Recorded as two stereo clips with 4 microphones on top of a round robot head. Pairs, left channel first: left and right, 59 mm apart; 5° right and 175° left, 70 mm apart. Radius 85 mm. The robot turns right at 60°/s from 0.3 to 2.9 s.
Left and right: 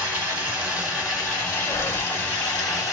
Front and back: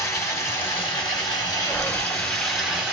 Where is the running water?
50° right, 2.5 m; by 2.9 s 110° left, 2.5 m.